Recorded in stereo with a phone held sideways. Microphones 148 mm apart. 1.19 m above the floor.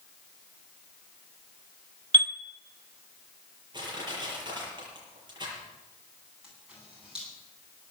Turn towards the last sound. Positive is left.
turn(degrees=-5)  # may be behind; listen again after turning